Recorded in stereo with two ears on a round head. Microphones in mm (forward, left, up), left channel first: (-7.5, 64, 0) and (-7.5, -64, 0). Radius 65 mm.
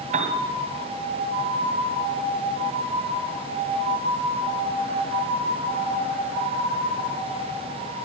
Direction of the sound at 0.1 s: 50° right (ahead or behind).